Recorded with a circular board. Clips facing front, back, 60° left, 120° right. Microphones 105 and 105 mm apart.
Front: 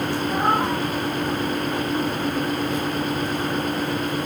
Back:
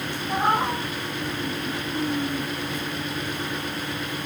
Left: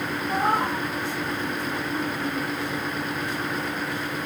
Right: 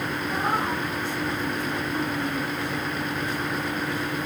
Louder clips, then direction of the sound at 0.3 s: Even, left 3 dB; 80° left.